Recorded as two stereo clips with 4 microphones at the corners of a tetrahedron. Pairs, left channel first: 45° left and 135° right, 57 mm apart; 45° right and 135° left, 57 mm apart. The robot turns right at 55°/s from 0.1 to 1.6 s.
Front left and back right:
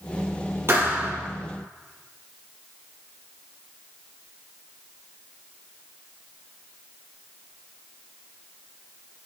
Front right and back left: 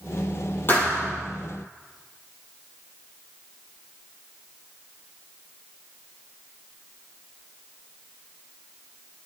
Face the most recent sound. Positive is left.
turn(degrees=-40)